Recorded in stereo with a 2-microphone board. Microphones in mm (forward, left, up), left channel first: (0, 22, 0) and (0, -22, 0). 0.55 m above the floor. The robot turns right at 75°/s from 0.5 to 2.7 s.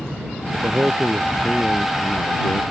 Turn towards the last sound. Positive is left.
turn(degrees=90)